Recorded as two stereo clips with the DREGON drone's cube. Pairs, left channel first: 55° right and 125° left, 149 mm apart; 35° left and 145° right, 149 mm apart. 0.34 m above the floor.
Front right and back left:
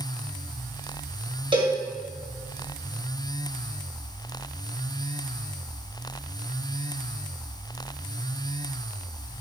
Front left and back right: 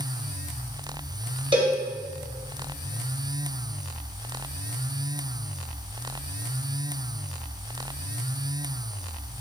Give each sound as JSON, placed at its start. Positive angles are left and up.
{"t": 1.5, "sound": "a cowbell", "azimuth_deg": 170, "distance_m": 2.0}